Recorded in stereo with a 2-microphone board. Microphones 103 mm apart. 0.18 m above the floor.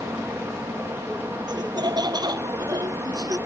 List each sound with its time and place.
1.5 s laughter: 45° right (ahead or behind); by 3.4 s 40° right (ahead or behind)